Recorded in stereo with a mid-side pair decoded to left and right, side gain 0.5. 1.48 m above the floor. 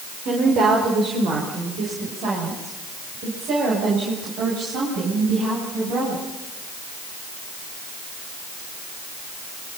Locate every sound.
0.2 s a woman speaking: 70° right, 5 m; by 6.2 s 80° right, 10.5 m